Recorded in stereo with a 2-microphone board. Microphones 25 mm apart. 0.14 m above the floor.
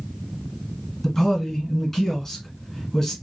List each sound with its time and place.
1.0 s a man speaking: 10° left (ahead or behind), 1.7 m